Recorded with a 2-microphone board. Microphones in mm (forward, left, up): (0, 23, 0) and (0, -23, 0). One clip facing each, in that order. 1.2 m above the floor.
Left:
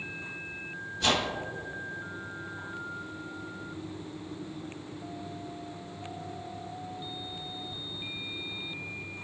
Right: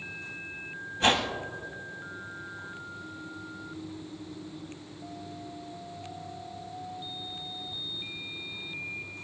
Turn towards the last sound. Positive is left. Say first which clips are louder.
# right 3 dB
turn(degrees=-40)  # may be behind; listen again after turning